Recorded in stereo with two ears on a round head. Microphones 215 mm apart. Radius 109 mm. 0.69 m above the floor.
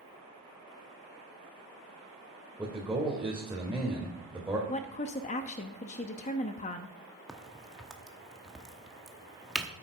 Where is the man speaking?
5° right (ahead or behind), 2 m.